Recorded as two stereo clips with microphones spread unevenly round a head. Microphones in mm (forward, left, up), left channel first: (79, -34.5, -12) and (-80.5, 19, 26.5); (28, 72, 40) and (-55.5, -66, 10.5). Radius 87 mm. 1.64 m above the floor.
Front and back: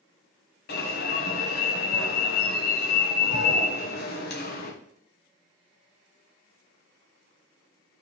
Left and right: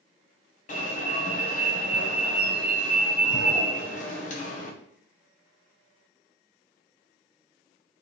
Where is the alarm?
10° left, 1.8 m.